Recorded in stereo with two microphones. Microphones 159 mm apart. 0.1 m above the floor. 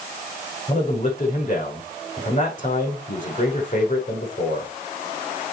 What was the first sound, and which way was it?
A man speaking, 50° left (ahead or behind).